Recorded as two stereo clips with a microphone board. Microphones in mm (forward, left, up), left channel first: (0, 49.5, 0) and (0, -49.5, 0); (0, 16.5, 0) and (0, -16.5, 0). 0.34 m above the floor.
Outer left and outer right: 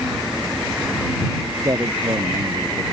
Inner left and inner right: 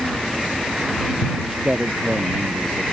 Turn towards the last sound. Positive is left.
turn(degrees=-30)  # may be behind; listen again after turning